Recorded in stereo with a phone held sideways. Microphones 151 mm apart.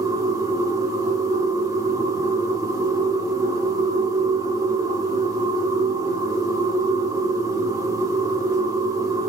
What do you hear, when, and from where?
0.0 s a machine running: 20° right (ahead or behind), 0.8 m